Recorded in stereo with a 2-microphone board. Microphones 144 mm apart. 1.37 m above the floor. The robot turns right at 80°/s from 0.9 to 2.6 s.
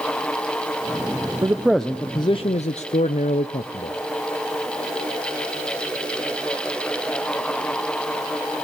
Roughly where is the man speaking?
Ahead right.